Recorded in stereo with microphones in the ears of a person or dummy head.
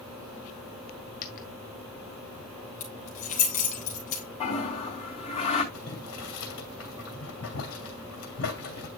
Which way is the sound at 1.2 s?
45° left (ahead or behind).